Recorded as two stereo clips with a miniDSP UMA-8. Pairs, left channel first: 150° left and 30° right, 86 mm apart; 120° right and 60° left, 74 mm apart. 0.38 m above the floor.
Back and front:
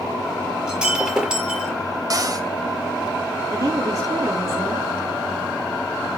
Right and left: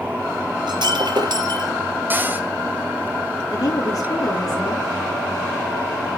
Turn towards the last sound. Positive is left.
turn(degrees=-75)